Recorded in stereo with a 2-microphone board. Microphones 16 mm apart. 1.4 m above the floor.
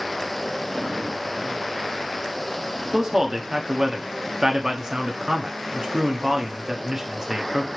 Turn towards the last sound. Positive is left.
turn(degrees=-30)  # may be behind; listen again after turning